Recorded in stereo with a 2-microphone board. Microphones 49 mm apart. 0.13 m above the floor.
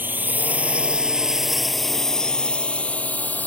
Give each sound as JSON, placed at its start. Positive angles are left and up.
{"t": 0.0, "sound": "a drone", "side_deg": -40}